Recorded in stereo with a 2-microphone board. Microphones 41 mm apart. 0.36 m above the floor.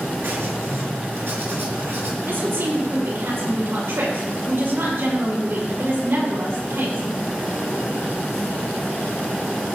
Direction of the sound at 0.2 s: 75° right (ahead or behind).